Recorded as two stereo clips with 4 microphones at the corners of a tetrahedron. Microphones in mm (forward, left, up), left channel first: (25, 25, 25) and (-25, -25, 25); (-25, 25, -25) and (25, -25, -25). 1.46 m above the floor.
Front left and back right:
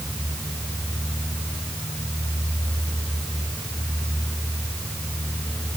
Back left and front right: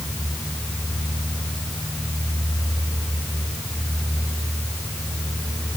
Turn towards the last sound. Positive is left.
No sound to turn to.